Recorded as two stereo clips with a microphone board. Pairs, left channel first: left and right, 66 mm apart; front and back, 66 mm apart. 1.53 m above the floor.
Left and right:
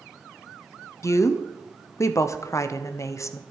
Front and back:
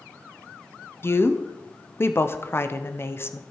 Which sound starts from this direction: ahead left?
A woman speaking, at 1.0 s.